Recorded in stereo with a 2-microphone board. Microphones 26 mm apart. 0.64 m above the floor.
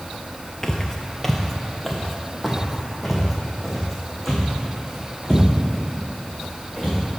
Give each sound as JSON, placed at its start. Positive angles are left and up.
{"t": 0.6, "sound": "footsteps", "side_deg": 20, "distance_m": 0.6}